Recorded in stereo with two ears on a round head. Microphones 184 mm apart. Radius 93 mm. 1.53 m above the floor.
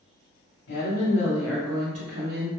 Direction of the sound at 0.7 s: 60° left (ahead or behind).